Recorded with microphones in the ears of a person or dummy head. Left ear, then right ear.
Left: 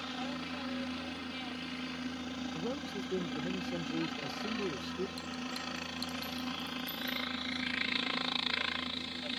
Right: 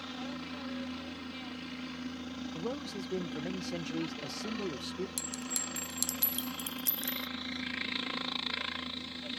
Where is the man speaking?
20° right (ahead or behind).